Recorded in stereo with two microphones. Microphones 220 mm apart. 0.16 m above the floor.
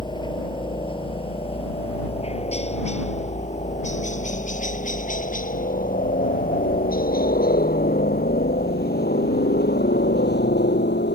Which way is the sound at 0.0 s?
20° left (ahead or behind).